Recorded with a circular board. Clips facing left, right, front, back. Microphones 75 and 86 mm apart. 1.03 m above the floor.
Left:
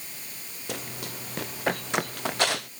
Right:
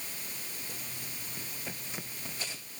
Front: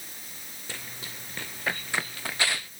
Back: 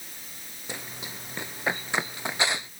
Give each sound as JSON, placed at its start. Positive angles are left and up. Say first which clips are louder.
{"t": 0.7, "sound": "running footsteps", "louder": "left 9 dB, back 3 dB", "azimuth_deg": 110}